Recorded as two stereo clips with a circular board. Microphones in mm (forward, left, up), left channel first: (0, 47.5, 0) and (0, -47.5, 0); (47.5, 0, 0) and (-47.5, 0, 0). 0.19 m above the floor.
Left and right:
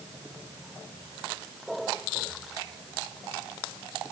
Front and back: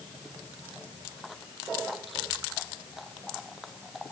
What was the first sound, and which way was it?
Only background noise.